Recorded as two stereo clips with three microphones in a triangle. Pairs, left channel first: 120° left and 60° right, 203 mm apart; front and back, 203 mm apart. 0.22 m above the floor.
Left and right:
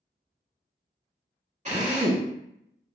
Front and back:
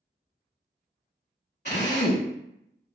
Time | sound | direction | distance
1.6 | a drill | 15° right | 0.9 m